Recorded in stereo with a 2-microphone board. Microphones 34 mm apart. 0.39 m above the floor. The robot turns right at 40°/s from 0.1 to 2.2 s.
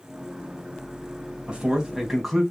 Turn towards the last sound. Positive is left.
turn(degrees=0)  # may be behind; listen again after turning